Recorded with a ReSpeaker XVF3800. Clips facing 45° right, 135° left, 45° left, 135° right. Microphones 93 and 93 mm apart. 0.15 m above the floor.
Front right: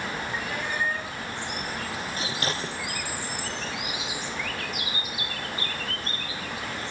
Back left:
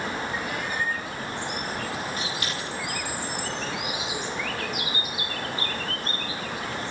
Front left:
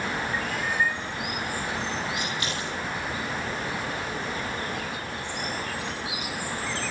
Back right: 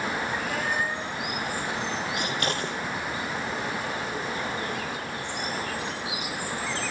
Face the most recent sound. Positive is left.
turn(degrees=-100)